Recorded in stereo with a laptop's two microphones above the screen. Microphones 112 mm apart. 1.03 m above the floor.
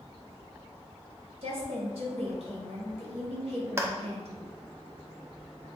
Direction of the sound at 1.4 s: 65° right (ahead or behind).